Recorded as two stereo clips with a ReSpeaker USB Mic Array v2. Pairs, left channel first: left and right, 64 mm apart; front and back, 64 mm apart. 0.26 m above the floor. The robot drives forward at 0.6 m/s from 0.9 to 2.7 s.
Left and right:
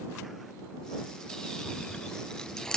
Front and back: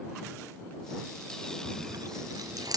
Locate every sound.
1.6 s chewing: 165° left, 0.7 m; by 2.8 s 170° left, 1.4 m